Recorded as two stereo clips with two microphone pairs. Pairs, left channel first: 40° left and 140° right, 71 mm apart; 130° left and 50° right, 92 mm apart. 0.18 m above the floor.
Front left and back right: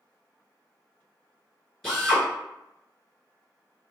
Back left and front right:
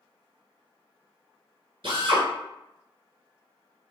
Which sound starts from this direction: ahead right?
A drill, at 1.8 s.